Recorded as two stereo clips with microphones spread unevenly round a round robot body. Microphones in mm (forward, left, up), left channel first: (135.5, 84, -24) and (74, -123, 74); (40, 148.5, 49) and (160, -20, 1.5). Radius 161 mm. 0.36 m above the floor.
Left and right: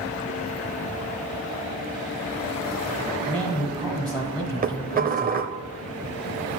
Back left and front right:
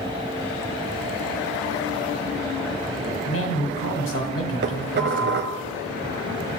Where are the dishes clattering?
45° right, 1.1 m.